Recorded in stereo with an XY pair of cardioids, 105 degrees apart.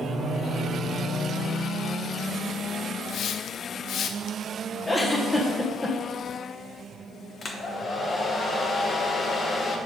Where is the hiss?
65° left, 0.7 m.